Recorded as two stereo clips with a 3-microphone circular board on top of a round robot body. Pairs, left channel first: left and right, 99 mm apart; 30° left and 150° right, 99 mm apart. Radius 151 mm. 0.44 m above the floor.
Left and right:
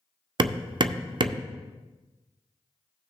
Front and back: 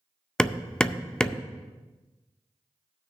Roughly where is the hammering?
Ahead right.